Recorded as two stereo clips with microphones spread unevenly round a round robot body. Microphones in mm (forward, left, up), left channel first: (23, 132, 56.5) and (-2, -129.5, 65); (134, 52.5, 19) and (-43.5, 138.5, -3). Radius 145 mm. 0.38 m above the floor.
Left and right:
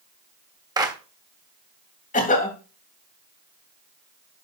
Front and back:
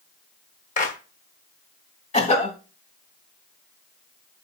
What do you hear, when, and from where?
0.8 s a clap: 30° right, 1.2 m
2.1 s a cough: 30° left, 2.5 m